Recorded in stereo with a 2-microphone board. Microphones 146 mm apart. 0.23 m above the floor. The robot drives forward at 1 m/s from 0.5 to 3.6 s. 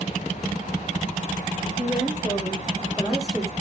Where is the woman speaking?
Centre (ahead or behind), 8.5 m.